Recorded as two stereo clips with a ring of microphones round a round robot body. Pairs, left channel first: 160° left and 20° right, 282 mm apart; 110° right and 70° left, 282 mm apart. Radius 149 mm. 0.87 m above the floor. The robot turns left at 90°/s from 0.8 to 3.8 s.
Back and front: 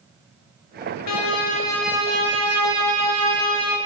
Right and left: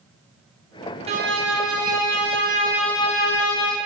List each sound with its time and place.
1.1 s a violin: 135° left, 1.0 m; by 3.8 s 105° right, 1.0 m